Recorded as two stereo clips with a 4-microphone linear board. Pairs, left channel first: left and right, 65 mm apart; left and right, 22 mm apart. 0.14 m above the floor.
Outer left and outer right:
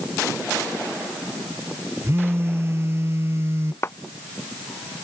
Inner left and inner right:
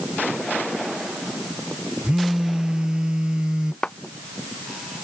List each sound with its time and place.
2.0 s a phone buzzing: 40° right (ahead or behind)
3.8 s a clap: 40° left (ahead or behind)